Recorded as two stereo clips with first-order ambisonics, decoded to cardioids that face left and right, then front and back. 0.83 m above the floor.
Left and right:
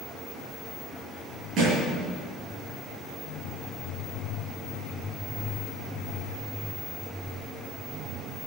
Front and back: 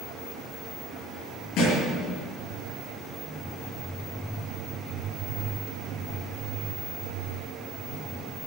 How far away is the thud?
About 7 m.